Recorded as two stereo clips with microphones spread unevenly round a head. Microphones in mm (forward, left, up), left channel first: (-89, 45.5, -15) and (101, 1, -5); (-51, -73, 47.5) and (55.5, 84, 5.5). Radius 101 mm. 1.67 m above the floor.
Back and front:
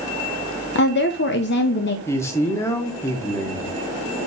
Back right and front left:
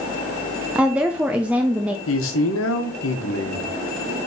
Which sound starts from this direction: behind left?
A woman speaking, at 0.8 s.